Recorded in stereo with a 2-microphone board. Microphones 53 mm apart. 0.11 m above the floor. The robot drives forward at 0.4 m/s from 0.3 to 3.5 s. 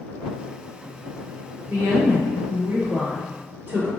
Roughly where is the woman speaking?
Right.